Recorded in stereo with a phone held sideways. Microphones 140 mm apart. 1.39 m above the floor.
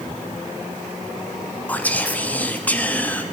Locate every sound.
1.7 s whispering: 10° left (ahead or behind), 0.8 m